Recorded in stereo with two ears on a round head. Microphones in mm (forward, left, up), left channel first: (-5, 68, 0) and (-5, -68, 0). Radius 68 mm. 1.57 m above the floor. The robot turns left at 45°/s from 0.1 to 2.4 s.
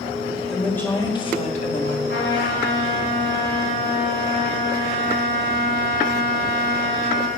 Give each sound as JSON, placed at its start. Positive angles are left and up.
{"t": 0.5, "sound": "a woman speaking", "azimuth_deg": 180, "distance_m": 1.5}
{"t": 2.1, "sound": "a trumpet", "side_deg": 75, "distance_m": 1.9}